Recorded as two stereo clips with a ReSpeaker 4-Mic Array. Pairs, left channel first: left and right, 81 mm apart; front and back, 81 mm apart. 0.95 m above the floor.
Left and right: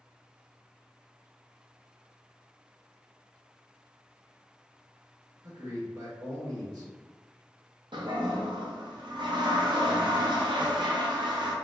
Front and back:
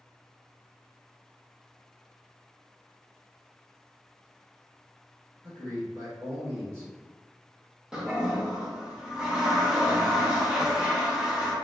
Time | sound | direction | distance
5.4 | a man speaking | 130° right | 1.1 m
7.9 | a toilet flushing | 100° right | 0.5 m